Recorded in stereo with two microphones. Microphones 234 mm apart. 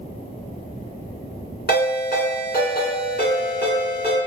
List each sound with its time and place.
1.7 s a ringtone: 45° left (ahead or behind), 1.4 m